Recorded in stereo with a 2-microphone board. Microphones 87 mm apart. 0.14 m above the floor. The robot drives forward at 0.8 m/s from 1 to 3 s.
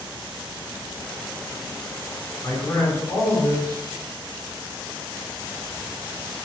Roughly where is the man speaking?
Left.